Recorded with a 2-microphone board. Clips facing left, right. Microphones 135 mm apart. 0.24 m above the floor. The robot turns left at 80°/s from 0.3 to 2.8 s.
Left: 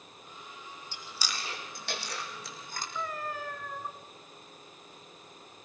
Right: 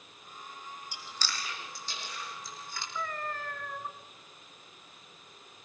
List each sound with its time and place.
0.9 s chewing: 15° right (ahead or behind), 3.5 m; by 2.9 s 40° left (ahead or behind), 3.5 m
3.0 s a cat meowing: 10° left (ahead or behind), 1.6 m